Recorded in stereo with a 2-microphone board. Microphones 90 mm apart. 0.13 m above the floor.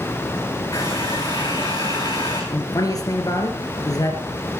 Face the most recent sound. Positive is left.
turn(degrees=45)  # may be behind; listen again after turning